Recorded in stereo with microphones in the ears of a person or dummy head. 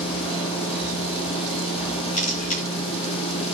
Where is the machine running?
55° left (ahead or behind), 6.5 m.